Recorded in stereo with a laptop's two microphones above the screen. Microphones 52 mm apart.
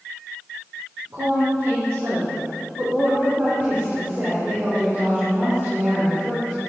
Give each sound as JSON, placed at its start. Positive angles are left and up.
{"t": 1.1, "sound": "a woman speaking", "side_deg": -75, "distance_m": 4.0}
{"t": 3.2, "sound": "a woman speaking", "side_deg": -40, "distance_m": 4.0}